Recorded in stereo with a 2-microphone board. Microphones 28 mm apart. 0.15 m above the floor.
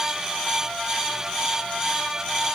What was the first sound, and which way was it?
Only background noise.